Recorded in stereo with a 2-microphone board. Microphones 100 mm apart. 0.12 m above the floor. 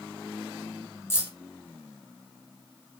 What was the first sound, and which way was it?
Keys jangling, 25° left (ahead or behind).